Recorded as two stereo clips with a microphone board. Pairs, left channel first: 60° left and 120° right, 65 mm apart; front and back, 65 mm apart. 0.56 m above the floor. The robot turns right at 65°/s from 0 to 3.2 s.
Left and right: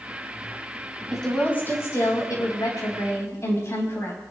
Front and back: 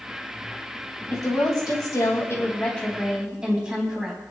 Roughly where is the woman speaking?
Ahead right.